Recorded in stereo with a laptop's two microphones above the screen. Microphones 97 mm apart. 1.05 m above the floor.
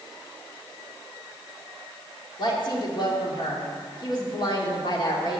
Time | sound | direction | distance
2.4 | a woman speaking | 50° left (ahead or behind) | 2 m